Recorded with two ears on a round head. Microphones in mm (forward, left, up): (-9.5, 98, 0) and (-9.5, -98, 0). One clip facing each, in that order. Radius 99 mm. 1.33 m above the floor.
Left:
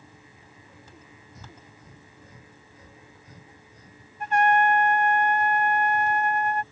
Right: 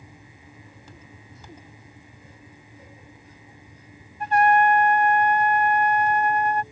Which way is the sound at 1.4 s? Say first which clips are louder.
Right 3 dB; 35° left (ahead or behind).